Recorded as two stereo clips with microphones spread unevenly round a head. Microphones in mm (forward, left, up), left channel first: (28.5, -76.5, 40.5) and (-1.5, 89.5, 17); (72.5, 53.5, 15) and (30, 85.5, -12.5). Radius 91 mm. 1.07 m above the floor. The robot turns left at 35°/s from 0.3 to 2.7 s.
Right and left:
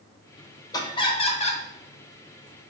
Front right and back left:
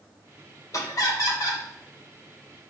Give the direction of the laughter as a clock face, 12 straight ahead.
12 o'clock.